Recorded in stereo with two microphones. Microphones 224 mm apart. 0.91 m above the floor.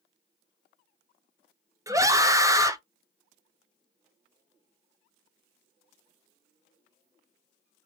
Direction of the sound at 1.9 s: 15° right (ahead or behind).